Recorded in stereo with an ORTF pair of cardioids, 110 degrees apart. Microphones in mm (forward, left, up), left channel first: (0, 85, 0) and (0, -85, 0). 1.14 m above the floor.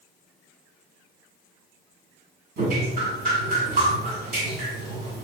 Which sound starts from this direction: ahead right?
Dripping, at 2.6 s.